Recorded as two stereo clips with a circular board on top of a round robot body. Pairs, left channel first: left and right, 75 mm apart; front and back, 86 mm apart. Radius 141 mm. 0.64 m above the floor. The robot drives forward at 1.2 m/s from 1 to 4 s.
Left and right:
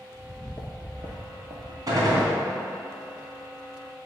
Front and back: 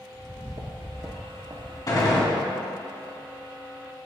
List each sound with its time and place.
0.1 s footsteps: 120° left, 0.9 m; by 1.8 s 125° right, 1.9 m
1.9 s a gunshot: 50° right, 3 m; by 2.3 s 60° right, 2.5 m